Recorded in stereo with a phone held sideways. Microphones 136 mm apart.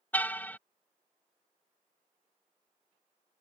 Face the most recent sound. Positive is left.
turn(degrees=15)  # may be behind; listen again after turning